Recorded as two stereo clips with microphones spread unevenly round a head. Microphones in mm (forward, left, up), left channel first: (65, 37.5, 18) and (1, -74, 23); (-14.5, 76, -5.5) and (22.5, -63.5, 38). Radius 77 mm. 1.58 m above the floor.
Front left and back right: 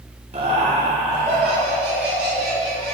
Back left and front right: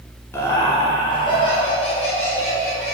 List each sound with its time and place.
0.3 s laughter: 175° right, 1.0 m; by 2.9 s 155° left, 2.5 m